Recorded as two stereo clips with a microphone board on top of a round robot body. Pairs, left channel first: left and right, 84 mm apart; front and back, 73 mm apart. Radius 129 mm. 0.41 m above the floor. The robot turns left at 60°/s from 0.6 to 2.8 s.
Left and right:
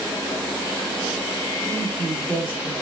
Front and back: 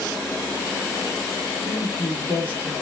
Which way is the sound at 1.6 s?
5° left.